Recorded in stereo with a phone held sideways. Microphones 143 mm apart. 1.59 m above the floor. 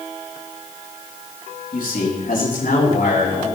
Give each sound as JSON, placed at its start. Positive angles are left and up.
{"t": 1.7, "sound": "a man speaking", "side_deg": 70, "distance_m": 4.0}